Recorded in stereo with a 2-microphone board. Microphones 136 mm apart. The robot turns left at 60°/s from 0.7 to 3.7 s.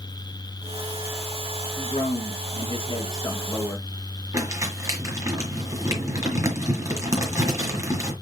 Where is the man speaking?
115° left, 4 m; by 3.9 s 5° right, 4 m.